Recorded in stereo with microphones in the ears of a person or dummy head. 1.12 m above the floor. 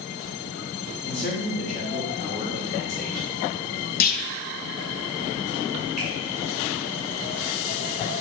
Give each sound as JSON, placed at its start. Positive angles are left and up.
{"t": 1.0, "sound": "a man speaking", "side_deg": 50, "distance_m": 3.0}
{"t": 4.0, "sound": "a clunk", "side_deg": 45, "distance_m": 0.9}
{"t": 6.0, "sound": "a finger snap", "side_deg": 0, "distance_m": 3.0}